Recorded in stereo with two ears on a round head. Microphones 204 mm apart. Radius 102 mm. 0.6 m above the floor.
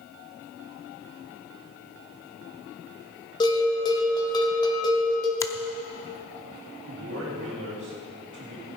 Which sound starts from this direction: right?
A man speaking, at 6.8 s.